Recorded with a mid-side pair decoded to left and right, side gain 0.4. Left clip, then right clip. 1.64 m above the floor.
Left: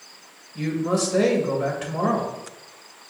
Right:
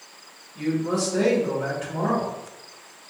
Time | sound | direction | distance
0.6 | a man speaking | 55° left | 1.8 m